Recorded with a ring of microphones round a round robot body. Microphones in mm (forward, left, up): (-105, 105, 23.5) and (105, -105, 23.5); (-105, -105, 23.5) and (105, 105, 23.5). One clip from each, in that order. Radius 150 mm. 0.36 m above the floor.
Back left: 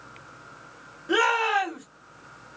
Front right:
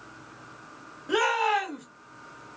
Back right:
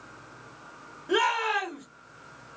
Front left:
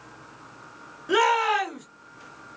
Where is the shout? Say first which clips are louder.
Back left 2 dB, front left 4 dB; 50° left, 1.2 m.